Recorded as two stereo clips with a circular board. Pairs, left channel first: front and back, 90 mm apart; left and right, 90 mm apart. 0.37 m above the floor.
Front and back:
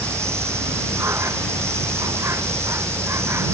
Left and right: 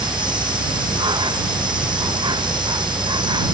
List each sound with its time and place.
0.0 s an insect: 120° right